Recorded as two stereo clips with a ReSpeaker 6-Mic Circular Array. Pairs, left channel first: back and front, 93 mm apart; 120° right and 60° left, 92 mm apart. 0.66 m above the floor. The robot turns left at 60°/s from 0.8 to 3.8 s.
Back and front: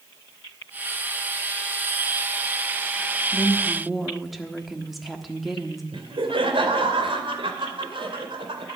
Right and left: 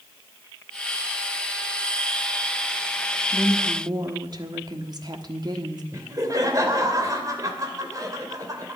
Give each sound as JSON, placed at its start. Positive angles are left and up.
{"t": 3.3, "sound": "a woman speaking", "azimuth_deg": 115, "distance_m": 1.4}
{"t": 5.9, "sound": "laughter", "azimuth_deg": 10, "distance_m": 2.5}